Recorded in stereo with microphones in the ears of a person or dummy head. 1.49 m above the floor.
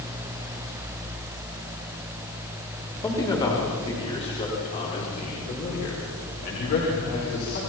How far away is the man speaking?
About 4 m.